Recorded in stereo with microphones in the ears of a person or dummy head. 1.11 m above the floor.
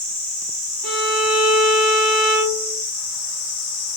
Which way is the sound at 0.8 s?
Centre (ahead or behind).